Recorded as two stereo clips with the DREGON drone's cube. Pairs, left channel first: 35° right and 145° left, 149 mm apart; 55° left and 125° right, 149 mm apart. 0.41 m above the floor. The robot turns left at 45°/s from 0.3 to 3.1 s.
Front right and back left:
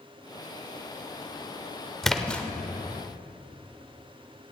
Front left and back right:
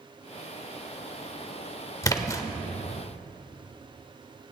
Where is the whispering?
No whispering in this recording.